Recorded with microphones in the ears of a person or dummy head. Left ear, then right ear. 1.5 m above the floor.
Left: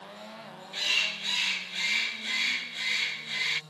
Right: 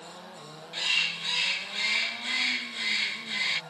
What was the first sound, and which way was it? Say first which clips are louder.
A bird: right 1 dB; 5° right (ahead or behind).